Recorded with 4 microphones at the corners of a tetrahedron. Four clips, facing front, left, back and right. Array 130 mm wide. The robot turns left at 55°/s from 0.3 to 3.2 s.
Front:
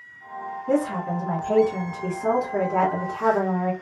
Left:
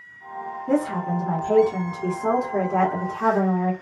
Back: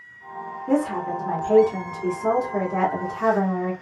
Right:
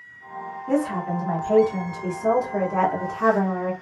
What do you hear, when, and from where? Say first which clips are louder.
0.7 s a woman speaking: left 1 dB, back 1 dB; 125° left, 1.2 m; by 3.7 s 10° right, 1.2 m